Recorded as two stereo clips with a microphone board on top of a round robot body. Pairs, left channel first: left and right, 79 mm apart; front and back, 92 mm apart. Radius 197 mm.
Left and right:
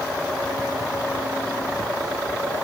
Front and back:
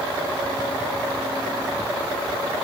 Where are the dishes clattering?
I don't hear dishes clattering.